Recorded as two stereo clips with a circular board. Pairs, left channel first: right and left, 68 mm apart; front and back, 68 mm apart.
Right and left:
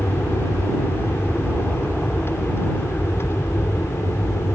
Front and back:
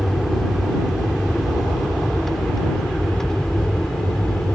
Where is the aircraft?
90° right; by 4.6 s 75° right.